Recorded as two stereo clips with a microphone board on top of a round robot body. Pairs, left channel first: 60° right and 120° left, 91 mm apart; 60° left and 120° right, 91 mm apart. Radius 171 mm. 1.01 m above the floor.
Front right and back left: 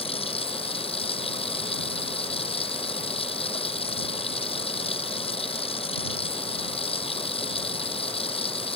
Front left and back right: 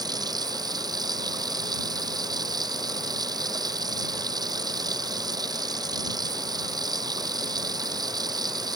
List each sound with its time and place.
0.0 s running water: 75° right